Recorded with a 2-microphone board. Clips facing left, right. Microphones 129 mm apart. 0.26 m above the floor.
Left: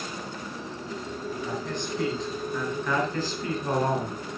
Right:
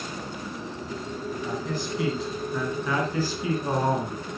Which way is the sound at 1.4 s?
5° right (ahead or behind).